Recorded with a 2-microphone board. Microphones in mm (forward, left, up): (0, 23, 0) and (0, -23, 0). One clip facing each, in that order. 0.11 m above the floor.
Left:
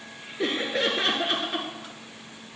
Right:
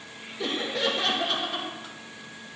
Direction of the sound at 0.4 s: 40° left (ahead or behind).